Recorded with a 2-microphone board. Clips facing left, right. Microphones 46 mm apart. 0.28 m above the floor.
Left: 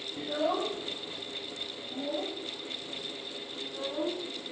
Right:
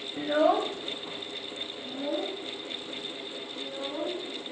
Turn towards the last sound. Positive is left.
turn(degrees=-65)  # may be behind; listen again after turning